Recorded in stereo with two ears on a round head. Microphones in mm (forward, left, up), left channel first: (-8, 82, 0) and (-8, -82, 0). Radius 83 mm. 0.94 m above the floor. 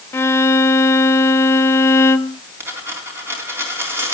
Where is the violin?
15° left (ahead or behind), 0.6 m.